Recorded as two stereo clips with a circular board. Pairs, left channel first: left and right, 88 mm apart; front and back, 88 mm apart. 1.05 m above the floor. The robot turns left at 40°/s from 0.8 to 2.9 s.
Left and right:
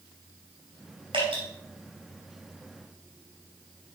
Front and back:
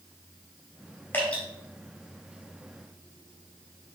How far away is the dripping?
About 4 m.